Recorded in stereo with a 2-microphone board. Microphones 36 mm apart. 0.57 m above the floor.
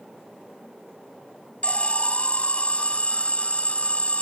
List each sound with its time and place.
1.6 s an alarm: 40° left (ahead or behind)